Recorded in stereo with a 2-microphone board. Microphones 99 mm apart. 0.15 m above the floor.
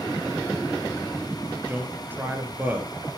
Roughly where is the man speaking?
Centre.